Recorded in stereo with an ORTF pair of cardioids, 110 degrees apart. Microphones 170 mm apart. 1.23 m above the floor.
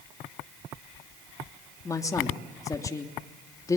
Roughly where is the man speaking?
Ahead.